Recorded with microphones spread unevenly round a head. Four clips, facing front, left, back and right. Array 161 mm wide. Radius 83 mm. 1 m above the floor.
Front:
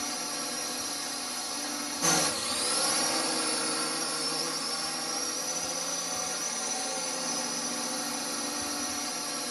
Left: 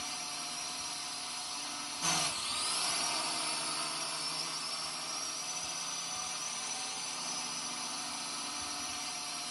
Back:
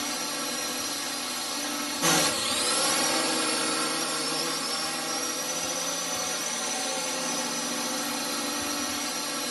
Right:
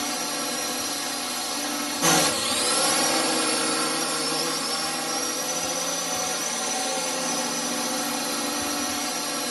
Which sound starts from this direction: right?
A drone, at 0.0 s.